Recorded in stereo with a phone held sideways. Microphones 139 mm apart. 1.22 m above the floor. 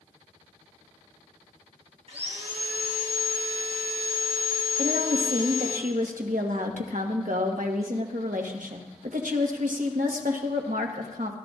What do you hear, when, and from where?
2.1 s sawing: 50° right (ahead or behind), 1.6 m
4.8 s a woman speaking: 90° right, 1.4 m